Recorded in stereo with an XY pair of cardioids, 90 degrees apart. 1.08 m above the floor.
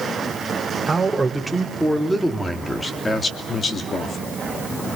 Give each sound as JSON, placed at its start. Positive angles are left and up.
{"t": 0.9, "sound": "a man speaking", "azimuth_deg": -15, "distance_m": 3.5}